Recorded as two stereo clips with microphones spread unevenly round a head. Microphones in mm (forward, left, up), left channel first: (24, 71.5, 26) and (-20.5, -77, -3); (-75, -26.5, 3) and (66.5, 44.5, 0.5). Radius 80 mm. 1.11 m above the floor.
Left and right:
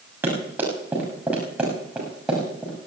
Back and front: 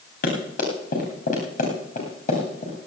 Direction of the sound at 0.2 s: 175° left.